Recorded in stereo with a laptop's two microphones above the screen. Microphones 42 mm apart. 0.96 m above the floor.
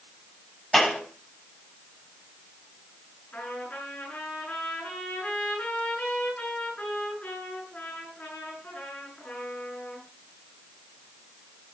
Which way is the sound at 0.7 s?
5° left (ahead or behind).